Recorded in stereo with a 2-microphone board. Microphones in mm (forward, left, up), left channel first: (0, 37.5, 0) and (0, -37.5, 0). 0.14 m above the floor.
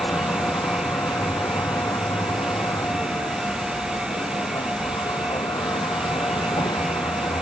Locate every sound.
0.0 s a vehicle: 45° left (ahead or behind); by 7.4 s 75° left (ahead or behind)